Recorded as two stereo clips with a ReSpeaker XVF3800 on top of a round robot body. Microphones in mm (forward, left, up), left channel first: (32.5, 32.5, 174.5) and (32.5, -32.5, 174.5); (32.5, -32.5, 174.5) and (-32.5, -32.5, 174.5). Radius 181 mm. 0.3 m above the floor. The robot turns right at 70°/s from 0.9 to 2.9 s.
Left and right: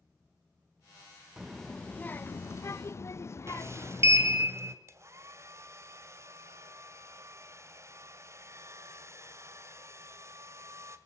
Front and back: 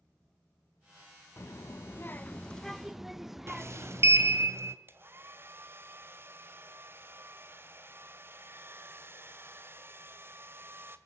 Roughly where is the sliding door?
Behind right.